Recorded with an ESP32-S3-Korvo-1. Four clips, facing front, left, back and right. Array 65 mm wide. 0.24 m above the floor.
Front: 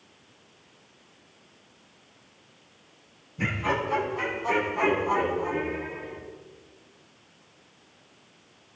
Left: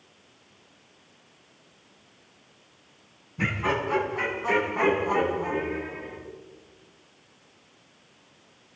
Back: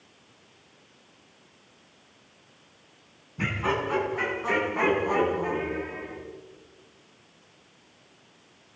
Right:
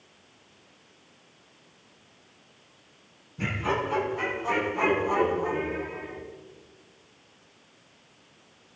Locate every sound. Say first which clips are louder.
3.4 s laughter: left 1 dB, even; 135° left, 2.5 m; by 6.2 s 155° left, 6 m